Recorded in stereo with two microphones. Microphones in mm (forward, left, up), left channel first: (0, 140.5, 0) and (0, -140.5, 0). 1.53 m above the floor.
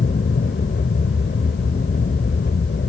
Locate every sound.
0.0 s an aircraft: 35° left (ahead or behind)